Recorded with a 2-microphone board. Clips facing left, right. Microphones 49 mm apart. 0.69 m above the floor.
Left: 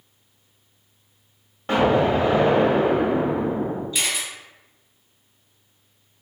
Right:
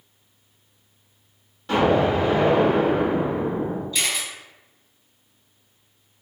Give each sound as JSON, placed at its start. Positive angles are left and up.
{"t": 1.7, "sound": "an explosion", "side_deg": 35, "distance_m": 1.0}
{"t": 3.9, "sound": "a camera shutter", "side_deg": 10, "distance_m": 1.3}